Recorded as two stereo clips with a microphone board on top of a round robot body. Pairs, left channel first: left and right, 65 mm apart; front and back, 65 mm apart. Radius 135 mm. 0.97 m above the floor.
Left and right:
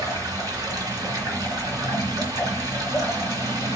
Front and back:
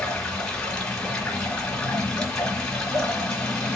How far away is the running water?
About 2 m.